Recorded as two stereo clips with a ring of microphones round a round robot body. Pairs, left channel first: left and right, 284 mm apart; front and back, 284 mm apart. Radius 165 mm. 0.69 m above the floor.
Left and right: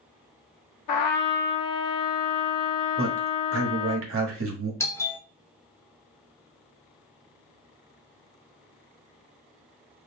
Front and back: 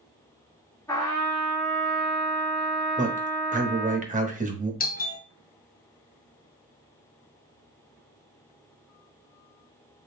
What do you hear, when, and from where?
0.9 s a trumpet: 80° left, 0.8 m
3.0 s a man speaking: 120° right, 1.3 m
4.8 s a doorbell: 15° left, 1.0 m